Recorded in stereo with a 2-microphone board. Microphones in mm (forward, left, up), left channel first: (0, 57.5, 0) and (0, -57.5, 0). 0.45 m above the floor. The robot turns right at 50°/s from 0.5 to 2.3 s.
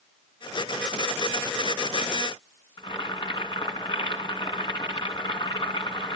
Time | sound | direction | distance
2.8 | boiling | 40° left (ahead or behind) | 2.5 m